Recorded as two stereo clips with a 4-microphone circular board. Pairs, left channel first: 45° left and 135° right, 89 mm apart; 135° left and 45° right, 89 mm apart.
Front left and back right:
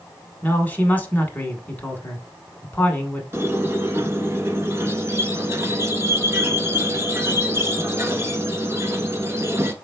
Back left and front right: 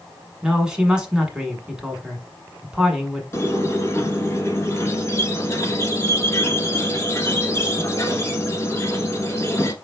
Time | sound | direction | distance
0.4 | a man speaking | 20° left | 1.0 m
3.3 | a squeak | 175° left | 1.0 m